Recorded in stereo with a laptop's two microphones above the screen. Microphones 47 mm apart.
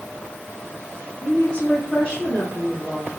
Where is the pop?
No pop in this recording.